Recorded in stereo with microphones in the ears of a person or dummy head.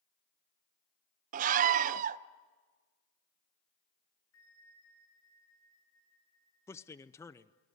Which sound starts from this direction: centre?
A man speaking, at 6.7 s.